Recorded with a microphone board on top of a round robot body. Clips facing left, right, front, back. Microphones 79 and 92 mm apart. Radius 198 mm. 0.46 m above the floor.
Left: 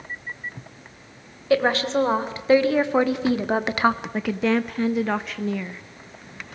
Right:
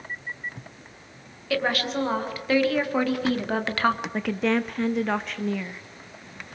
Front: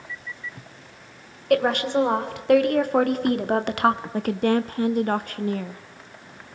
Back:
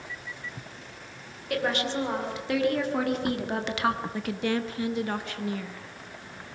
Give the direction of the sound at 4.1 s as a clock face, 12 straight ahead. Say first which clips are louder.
Left 2 dB, front 7 dB; 12 o'clock.